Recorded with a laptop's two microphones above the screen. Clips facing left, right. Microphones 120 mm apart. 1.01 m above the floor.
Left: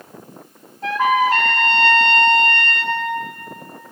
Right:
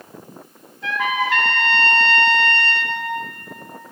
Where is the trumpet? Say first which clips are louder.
Left 6 dB; 40° left (ahead or behind), 3 m.